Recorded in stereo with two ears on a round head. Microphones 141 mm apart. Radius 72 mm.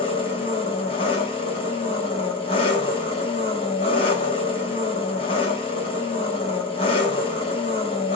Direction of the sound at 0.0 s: 35° left (ahead or behind).